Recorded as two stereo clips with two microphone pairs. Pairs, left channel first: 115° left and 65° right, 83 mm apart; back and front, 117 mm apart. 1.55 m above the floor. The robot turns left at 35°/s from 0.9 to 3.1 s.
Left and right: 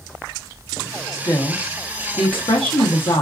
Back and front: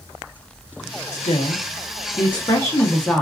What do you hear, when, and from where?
1.1 s a woman speaking: 170° left, 1.2 m; by 3.2 s 100° left, 1.2 m